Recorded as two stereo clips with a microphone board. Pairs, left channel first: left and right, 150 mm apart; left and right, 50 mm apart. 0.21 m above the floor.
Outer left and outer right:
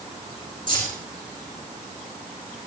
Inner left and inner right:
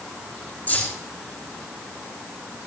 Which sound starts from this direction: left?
Keys jangling, at 0.7 s.